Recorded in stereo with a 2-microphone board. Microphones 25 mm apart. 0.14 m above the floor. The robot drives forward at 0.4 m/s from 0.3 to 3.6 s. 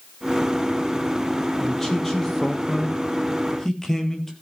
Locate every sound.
1.6 s a man speaking: 15° left (ahead or behind), 3.5 m; by 4.3 s 20° left (ahead or behind), 2.5 m